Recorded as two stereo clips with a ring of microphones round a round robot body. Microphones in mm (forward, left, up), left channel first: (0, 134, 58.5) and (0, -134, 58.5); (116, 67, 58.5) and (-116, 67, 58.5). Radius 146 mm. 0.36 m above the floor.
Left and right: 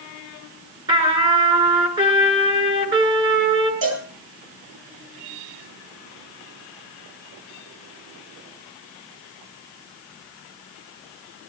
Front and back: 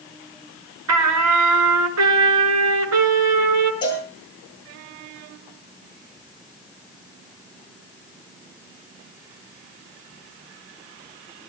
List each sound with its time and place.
0.9 s a trumpet: 165° right, 7.5 m
3.8 s a cowbell: 75° right, 9 m